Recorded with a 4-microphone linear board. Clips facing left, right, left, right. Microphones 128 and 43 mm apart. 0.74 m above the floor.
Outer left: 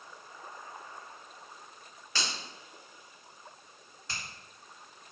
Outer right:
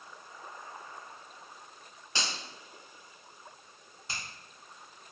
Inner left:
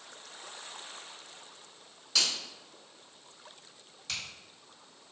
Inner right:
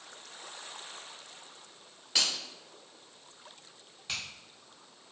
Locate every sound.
2.1 s a finger snap: 20° right (ahead or behind), 1.8 m
4.1 s a finger snap: 20° right (ahead or behind), 1.7 m